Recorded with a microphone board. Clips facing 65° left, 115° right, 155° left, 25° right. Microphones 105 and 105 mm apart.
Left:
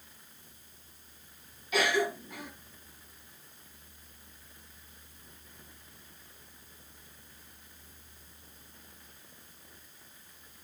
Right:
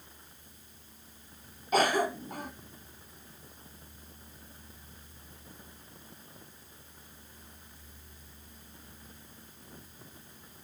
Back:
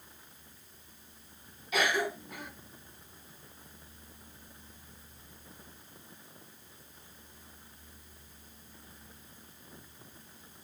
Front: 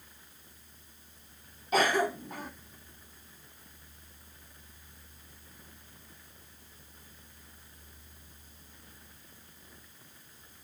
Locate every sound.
1.7 s a cough: 70° right, 1.8 m